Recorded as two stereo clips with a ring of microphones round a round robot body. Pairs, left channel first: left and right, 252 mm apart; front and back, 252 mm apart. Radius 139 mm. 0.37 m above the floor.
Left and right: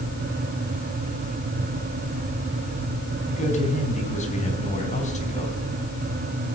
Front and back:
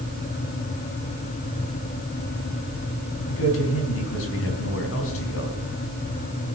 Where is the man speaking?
30° left, 4 m.